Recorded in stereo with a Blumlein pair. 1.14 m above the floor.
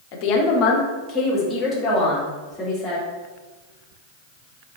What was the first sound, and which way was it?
A woman speaking, 45° left.